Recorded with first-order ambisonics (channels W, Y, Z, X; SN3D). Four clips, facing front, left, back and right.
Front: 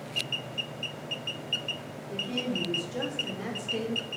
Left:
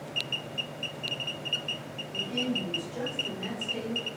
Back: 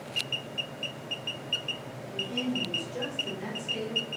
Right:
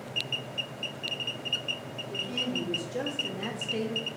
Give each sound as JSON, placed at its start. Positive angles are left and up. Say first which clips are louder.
{"t": 2.1, "sound": "a woman speaking", "louder": "left 1 dB, even", "azimuth_deg": -35, "distance_m": 1.5}